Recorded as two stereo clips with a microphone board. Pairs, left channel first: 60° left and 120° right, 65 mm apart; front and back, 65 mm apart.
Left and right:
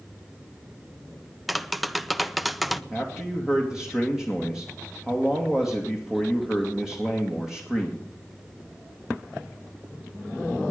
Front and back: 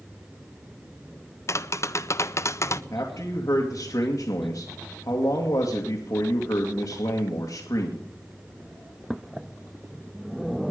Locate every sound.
1.5 s tapping: 35° right, 0.6 m
2.9 s a man speaking: 40° right, 2 m